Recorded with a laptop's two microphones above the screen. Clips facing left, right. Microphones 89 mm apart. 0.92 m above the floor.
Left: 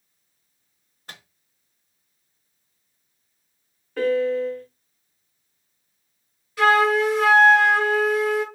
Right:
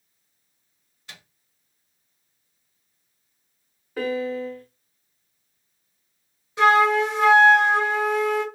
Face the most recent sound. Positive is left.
turn(degrees=-25)  # may be behind; listen again after turning